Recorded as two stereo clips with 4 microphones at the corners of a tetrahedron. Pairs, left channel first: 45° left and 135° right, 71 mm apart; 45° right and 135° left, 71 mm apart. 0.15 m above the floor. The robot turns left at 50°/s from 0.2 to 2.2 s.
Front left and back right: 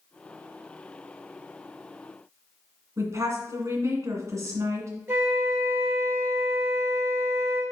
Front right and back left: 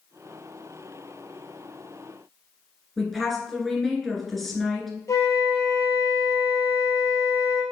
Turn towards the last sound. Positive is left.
turn(degrees=-80)